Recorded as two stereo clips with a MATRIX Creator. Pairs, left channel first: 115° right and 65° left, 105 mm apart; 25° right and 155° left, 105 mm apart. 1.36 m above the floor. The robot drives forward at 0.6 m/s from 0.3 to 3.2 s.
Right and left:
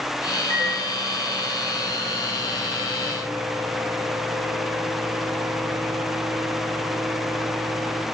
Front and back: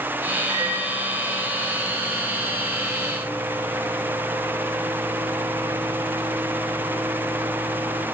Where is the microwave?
85° left, 4.5 m; by 8.0 s 105° left, 5 m.